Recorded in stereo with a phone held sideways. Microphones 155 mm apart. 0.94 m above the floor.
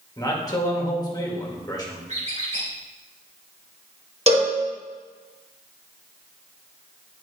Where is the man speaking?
25° left (ahead or behind), 1.8 m.